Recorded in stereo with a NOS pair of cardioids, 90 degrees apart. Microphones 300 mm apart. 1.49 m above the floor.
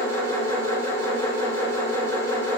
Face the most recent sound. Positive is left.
turn(degrees=10)